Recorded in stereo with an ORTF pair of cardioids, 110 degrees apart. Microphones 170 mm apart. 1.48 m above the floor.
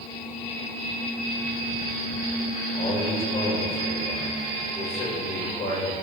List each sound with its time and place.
2.8 s a man speaking: 35° left, 3 m